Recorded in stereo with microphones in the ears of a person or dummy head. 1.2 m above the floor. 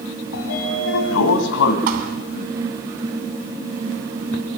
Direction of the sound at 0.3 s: 65° left (ahead or behind).